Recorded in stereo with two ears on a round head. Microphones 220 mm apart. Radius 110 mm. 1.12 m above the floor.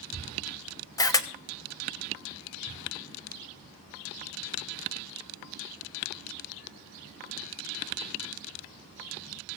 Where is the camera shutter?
15° left (ahead or behind), 1.0 m.